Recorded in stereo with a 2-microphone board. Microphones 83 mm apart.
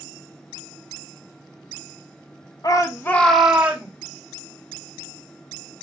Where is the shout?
50° left (ahead or behind), 0.9 m; by 3.9 s 25° right (ahead or behind), 1.3 m.